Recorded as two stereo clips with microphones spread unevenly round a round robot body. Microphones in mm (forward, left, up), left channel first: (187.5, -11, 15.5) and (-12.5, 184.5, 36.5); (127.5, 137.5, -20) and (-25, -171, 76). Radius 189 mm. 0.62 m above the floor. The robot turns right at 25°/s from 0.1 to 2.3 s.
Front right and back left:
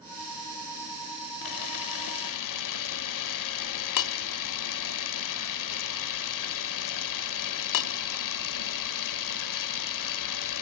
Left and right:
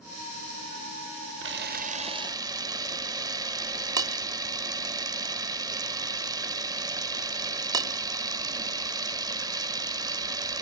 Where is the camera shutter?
60° right, 1.0 m; by 10.6 s 35° right, 1.0 m.